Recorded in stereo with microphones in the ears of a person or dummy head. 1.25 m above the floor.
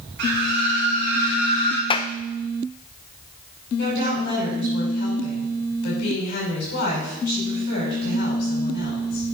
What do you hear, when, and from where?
0.2 s a scream: 60° right (ahead or behind), 2.5 m; by 1.8 s 65° right (ahead or behind), 3.5 m
1.9 s a clap: 25° left (ahead or behind), 0.5 m
3.8 s a woman speaking: 60° left (ahead or behind), 5 m